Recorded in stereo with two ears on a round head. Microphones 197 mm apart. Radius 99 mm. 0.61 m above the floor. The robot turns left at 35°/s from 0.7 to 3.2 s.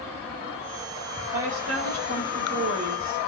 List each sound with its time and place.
1.3 s a woman speaking: 50° right, 3 m; by 3.2 s 120° right, 3 m